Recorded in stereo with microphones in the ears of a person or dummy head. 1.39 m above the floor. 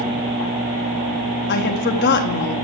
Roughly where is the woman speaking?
Left.